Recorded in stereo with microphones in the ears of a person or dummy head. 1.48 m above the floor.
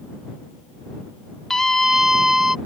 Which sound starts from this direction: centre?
A scream, at 1.5 s.